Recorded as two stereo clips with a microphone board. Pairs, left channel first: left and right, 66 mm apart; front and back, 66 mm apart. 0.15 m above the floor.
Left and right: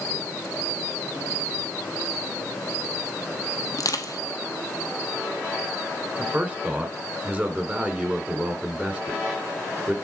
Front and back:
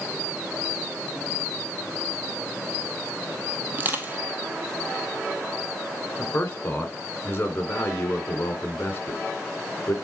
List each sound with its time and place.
3.7 s crushing: 120° left, 1.2 m
6.2 s a man speaking: 35° right, 1.9 m